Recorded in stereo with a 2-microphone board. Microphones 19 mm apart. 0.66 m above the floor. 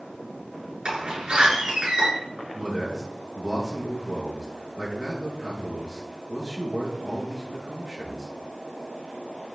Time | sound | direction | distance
0.8 | a door slam | 50° right (ahead or behind) | 7 m
2.5 | a man speaking | 40° right (ahead or behind) | 6.5 m